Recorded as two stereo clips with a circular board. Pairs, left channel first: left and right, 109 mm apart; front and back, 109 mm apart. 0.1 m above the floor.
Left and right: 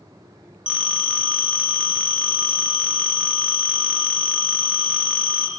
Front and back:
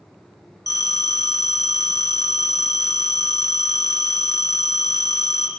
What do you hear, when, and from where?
0.7 s a phone ringing: 15° right, 1.3 m